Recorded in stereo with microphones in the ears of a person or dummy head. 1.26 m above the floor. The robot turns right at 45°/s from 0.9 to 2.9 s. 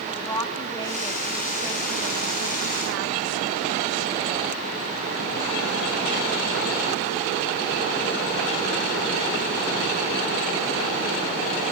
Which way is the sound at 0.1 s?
160° left.